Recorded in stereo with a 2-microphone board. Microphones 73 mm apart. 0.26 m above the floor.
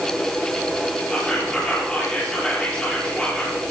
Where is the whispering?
15° left (ahead or behind), 5.5 m.